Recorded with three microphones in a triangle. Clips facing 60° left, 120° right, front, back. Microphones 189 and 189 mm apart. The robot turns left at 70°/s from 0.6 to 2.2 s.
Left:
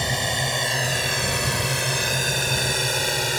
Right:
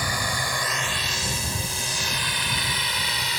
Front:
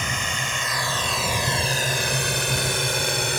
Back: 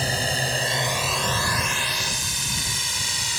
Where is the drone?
125° left; by 3.4 s 25° left.